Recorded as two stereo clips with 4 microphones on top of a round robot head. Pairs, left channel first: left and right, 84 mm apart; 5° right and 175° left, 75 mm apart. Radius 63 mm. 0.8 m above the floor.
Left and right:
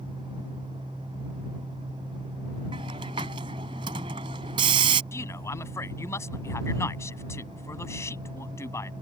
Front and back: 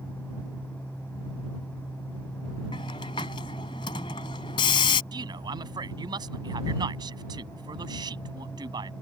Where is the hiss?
45° right.